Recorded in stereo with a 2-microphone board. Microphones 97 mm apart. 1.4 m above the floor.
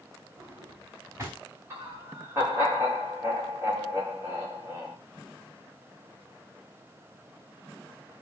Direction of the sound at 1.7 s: 25° right (ahead or behind).